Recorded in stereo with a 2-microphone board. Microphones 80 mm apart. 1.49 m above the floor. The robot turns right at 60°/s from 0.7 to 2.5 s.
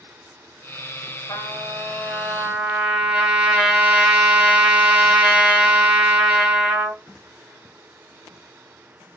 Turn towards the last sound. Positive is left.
turn(degrees=-170)